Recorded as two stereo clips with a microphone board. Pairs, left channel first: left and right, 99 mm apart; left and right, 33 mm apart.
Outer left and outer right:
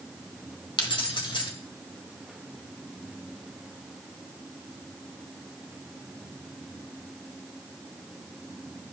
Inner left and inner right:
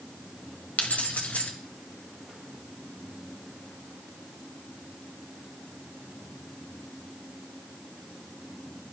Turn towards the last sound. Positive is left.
turn(degrees=55)  # may be behind; listen again after turning